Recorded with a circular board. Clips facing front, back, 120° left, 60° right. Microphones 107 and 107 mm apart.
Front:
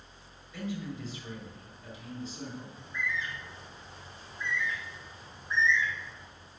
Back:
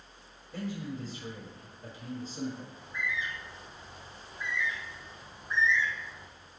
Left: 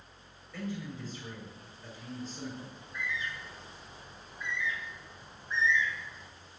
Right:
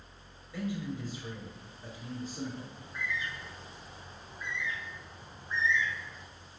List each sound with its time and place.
0.5 s a man speaking: 135° right, 7 m
2.7 s a bird: 100° right, 4 m